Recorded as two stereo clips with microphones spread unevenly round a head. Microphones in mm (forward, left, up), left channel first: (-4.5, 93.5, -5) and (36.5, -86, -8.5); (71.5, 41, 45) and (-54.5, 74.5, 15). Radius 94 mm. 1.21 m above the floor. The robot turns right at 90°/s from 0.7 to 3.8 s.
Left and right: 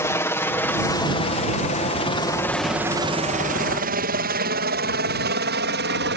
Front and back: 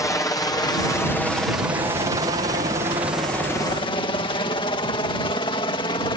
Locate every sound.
0.0 s a helicopter: 45° left; by 6.2 s 75° right